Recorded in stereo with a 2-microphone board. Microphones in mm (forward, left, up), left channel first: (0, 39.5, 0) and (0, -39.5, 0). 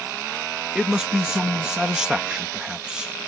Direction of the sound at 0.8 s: 10° right (ahead or behind).